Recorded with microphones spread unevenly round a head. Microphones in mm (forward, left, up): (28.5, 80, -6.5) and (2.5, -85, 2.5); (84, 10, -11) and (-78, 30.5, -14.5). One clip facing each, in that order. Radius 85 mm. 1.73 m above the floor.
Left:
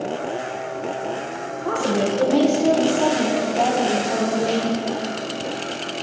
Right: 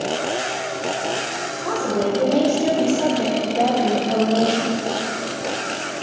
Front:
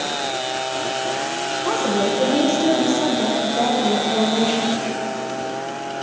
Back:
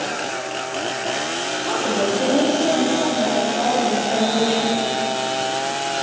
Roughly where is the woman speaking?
Ahead.